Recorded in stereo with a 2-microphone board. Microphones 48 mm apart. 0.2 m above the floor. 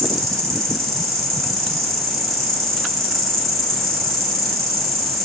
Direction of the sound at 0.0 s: 10° left (ahead or behind).